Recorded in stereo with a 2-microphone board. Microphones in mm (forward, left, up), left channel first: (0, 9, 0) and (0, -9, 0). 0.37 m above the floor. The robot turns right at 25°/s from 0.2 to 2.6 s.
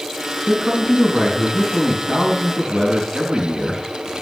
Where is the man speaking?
150° right, 4 m; by 3.8 s 100° right, 4 m.